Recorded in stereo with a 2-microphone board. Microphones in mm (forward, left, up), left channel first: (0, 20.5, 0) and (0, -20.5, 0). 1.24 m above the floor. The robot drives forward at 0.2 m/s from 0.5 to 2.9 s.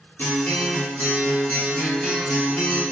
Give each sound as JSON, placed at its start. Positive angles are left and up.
{"t": 0.2, "sound": "a guitar", "side_deg": 70, "distance_m": 1.0}